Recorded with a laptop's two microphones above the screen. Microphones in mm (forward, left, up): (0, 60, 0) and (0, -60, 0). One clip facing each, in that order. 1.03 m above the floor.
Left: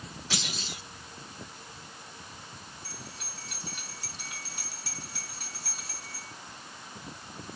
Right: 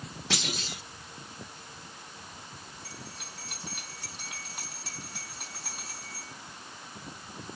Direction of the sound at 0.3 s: 75° right (ahead or behind).